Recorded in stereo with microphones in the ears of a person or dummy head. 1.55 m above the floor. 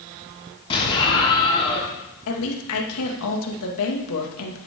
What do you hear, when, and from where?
0.7 s an explosion: 25° left (ahead or behind), 6 m
2.3 s a woman speaking: 85° left, 2.5 m